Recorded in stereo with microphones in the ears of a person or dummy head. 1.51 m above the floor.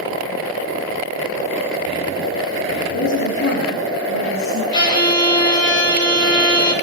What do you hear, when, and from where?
2.9 s a woman speaking: 70° left (ahead or behind), 5 m; by 4.6 s 85° left, 5 m
4.7 s a violin: 25° left (ahead or behind), 2 m